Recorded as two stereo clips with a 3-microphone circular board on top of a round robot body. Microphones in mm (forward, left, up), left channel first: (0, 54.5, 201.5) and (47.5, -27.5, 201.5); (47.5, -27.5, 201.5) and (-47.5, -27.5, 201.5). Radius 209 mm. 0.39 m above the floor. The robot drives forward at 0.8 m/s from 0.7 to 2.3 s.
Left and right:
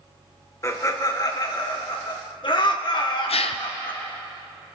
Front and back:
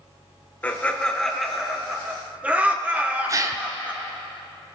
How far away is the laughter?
About 2.5 m.